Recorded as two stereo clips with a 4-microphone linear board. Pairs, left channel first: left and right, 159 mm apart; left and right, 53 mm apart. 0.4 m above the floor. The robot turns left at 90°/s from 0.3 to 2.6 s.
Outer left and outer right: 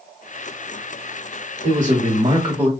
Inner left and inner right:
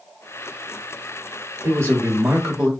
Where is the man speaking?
75° right, 1.1 m; by 2.7 s 160° right, 1.1 m.